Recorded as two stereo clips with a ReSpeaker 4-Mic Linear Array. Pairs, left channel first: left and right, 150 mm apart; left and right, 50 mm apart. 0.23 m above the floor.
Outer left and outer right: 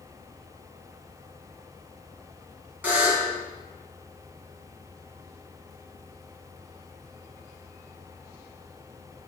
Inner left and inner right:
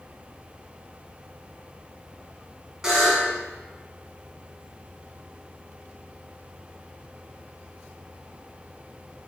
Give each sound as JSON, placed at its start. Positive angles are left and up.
{"t": 2.8, "sound": "a buzzer", "side_deg": -10, "distance_m": 2.0}